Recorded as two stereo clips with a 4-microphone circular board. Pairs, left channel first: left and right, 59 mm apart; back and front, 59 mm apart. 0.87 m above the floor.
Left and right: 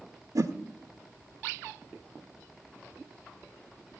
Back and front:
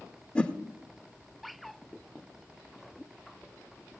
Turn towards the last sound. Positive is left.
turn(degrees=-105)